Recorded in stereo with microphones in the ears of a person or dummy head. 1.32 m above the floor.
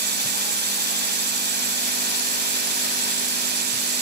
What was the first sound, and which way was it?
A drone, 45° right (ahead or behind).